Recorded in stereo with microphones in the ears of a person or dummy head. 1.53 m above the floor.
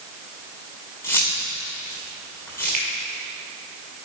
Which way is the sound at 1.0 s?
15° left (ahead or behind).